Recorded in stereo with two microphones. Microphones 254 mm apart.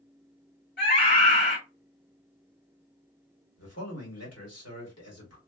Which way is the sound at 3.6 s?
75° left (ahead or behind).